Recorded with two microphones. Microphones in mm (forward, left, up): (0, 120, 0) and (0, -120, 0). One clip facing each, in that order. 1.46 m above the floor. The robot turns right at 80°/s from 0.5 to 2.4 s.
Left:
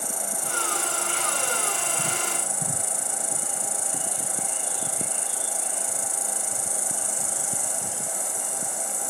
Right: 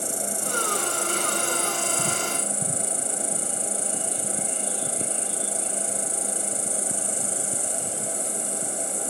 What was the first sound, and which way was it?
An insect, 30° right.